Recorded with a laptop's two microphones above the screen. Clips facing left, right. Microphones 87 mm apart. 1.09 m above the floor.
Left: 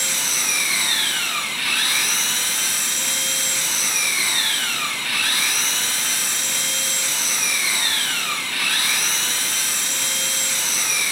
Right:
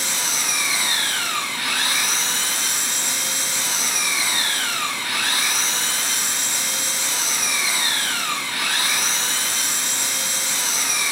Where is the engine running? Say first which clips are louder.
Right 1 dB; 25° right (ahead or behind), 1.4 m.